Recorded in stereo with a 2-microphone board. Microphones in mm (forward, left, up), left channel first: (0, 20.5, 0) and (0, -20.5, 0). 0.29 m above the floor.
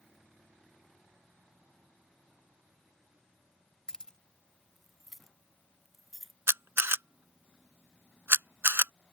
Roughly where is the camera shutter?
Right.